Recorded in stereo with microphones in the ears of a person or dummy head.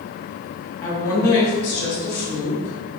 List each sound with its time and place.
0.8 s a woman speaking: 40° left (ahead or behind), 1.2 m; by 3.0 s 65° left (ahead or behind), 1.8 m